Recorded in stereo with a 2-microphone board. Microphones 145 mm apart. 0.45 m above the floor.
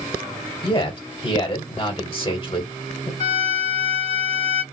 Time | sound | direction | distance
0.6 | a man speaking | 40° left (ahead or behind) | 1.5 m
3.2 | a violin | 35° left (ahead or behind) | 2.0 m